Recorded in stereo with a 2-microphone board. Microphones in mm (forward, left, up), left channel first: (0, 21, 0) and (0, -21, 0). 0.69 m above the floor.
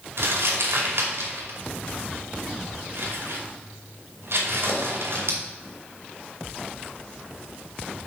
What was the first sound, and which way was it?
Crumpling, 75° right (ahead or behind).